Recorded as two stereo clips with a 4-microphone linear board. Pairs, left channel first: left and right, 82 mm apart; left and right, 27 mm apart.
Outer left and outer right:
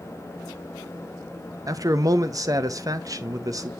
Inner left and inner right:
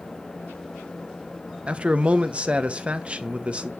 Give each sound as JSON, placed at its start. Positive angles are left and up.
{"t": 1.7, "sound": "a man speaking", "side_deg": -50, "distance_m": 1.0}